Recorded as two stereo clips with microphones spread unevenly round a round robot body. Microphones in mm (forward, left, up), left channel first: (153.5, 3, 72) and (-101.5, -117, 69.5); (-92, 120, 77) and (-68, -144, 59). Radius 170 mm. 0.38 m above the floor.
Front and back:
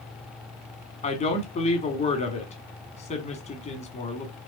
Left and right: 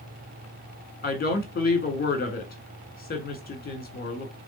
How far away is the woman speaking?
About 1.6 m.